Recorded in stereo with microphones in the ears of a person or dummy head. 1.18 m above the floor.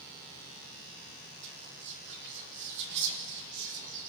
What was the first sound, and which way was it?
Whispering, 60° right (ahead or behind).